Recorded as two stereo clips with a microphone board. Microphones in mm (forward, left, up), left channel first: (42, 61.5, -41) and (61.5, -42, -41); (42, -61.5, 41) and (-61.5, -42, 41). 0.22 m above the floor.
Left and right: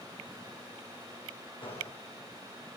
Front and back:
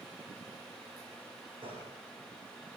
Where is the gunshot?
135° left, 8.5 m.